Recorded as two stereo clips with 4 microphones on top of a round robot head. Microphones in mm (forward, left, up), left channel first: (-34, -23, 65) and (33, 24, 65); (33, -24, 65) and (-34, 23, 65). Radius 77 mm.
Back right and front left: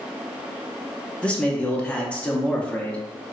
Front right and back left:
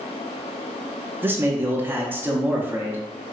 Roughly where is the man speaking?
Behind.